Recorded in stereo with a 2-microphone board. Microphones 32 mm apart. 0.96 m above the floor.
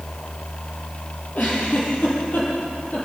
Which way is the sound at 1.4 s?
60° left (ahead or behind).